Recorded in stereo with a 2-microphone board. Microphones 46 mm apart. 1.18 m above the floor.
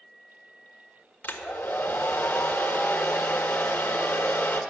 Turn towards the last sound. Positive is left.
turn(degrees=45)  # may be behind; listen again after turning